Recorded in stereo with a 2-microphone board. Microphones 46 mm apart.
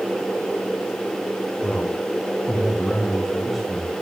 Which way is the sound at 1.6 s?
35° left (ahead or behind).